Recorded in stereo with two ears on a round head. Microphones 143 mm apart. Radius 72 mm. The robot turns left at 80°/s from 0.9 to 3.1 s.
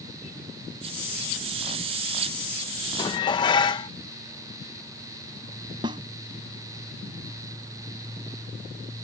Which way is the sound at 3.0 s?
30° left (ahead or behind).